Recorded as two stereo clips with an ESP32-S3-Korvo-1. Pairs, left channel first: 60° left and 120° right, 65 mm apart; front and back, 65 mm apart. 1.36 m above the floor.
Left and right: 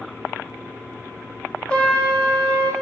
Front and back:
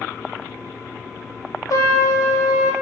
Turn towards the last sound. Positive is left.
turn(degrees=-10)